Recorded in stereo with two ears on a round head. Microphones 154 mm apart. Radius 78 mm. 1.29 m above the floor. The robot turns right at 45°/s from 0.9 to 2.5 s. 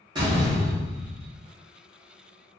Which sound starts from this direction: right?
A door slam, at 0.1 s.